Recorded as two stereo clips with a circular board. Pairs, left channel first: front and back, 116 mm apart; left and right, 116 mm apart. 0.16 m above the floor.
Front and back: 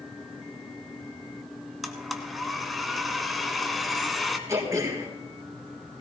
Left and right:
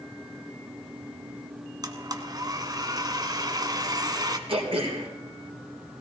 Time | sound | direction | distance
1.8 | a blender | 90° right | 1.3 m
4.5 | throat clearing | 120° right | 3.5 m